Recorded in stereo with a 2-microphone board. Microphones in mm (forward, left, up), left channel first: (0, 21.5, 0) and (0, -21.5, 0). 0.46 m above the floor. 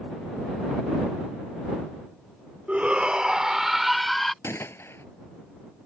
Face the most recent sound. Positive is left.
turn(degrees=75)  # may be behind; listen again after turning